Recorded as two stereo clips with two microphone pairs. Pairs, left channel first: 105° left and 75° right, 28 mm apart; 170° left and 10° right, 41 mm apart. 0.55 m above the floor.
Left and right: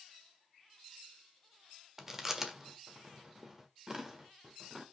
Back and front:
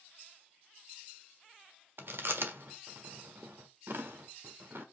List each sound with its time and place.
2.0 s chewing: straight ahead, 1.3 m